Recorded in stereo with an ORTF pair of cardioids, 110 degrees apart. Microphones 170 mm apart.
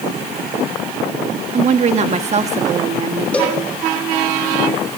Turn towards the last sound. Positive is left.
turn(degrees=10)